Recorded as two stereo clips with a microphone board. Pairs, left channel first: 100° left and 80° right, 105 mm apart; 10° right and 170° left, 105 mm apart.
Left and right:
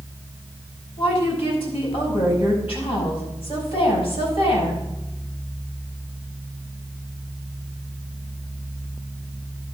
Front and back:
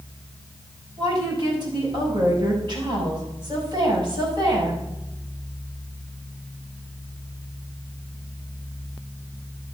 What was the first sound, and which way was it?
A woman speaking, 125° left.